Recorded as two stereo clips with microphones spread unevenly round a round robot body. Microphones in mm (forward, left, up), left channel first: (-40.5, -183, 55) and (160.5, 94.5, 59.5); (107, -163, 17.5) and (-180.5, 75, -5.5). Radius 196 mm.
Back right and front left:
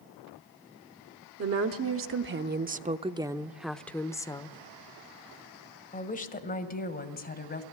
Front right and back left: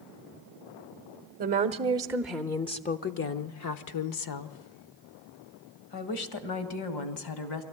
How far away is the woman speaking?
About 1.1 m.